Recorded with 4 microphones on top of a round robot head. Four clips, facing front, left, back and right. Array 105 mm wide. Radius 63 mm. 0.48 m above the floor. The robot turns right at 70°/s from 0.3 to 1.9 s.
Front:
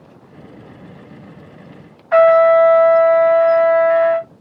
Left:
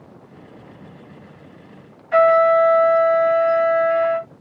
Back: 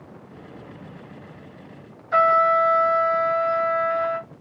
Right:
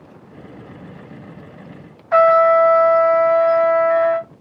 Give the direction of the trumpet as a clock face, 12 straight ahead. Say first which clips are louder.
Right 2 dB, front 8 dB; 1 o'clock.